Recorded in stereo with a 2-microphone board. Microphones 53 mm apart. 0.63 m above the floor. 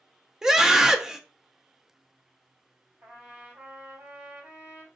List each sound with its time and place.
0.4 s a scream: 10° right (ahead or behind), 0.5 m
3.0 s a trumpet: 65° right (ahead or behind), 2.5 m